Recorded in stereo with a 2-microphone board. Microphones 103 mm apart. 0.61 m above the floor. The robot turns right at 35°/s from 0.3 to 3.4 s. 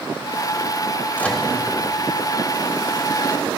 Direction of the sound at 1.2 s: 15° left (ahead or behind).